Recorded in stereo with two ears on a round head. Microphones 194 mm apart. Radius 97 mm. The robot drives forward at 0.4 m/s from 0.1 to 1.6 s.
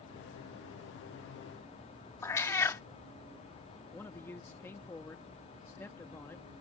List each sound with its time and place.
2.2 s a cat meowing: 10° left (ahead or behind)
3.9 s a man speaking: 10° left (ahead or behind)